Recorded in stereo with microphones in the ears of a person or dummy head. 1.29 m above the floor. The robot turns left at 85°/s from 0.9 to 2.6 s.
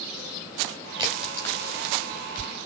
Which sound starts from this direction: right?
A crack, at 1.0 s.